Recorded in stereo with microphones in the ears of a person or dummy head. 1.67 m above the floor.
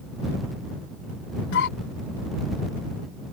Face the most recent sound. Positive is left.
turn(degrees=75)  # may be behind; listen again after turning